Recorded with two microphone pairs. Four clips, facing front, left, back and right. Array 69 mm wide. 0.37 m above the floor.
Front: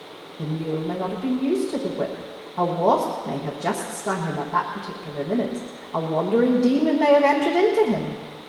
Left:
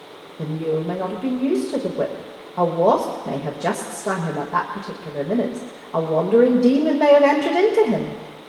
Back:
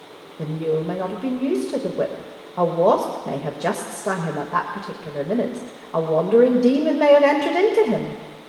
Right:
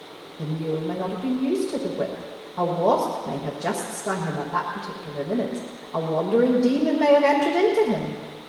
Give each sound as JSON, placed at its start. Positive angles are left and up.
{"t": 0.4, "sound": "a woman speaking", "azimuth_deg": 160, "distance_m": 1.3}